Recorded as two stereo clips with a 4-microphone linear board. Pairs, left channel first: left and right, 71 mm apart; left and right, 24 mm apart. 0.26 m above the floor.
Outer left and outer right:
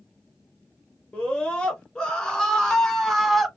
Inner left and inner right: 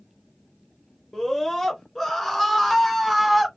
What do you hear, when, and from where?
1.1 s a scream: 15° left (ahead or behind), 3.5 m; by 3.5 s centre (ahead or behind), 1.7 m